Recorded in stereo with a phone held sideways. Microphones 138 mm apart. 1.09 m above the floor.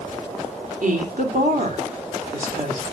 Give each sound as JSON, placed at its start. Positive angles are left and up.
{"t": 0.8, "sound": "a woman speaking", "side_deg": -70, "distance_m": 3.0}